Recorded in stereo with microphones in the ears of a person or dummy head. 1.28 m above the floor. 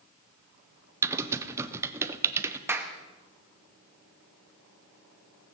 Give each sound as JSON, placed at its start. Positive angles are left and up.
{"t": 1.0, "sound": "typing on a keyboard", "side_deg": -10, "distance_m": 0.6}
{"t": 2.7, "sound": "a clap", "side_deg": -15, "distance_m": 1.0}